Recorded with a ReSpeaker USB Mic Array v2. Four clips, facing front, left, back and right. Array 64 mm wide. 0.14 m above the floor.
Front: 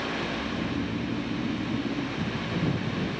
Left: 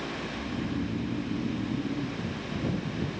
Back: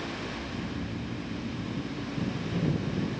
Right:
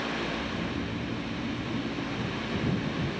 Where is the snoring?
35° left.